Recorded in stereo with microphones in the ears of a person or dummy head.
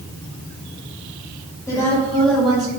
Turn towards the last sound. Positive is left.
turn(degrees=-5)  # may be behind; listen again after turning